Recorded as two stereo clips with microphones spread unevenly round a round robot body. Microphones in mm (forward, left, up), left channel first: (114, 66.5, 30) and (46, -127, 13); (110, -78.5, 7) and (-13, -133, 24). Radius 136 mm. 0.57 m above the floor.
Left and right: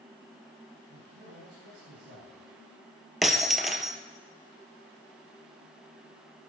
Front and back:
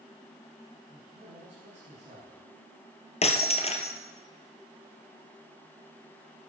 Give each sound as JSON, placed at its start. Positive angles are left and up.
{"t": 0.9, "sound": "a man speaking", "azimuth_deg": -120, "distance_m": 6.0}
{"t": 3.2, "sound": "breaking glass", "azimuth_deg": -20, "distance_m": 2.0}